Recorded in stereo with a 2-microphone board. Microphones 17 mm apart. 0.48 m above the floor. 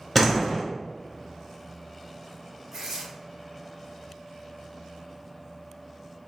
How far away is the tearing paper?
About 0.7 m.